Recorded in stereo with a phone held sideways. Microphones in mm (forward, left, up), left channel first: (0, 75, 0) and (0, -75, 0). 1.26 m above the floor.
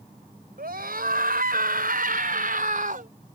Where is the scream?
80° right; by 3.1 s 65° right (ahead or behind).